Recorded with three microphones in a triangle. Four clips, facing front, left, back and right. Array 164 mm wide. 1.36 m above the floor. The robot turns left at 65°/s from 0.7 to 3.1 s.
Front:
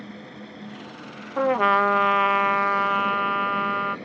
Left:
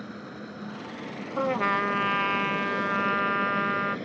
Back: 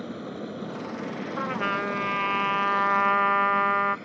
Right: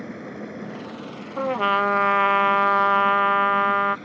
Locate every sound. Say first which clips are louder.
0.0 s running water: right 5 dB, back 5 dB; 140° right; by 4.1 s 65° left
1.4 s a trumpet: right 4 dB, front 10 dB; straight ahead; by 4.0 s 110° right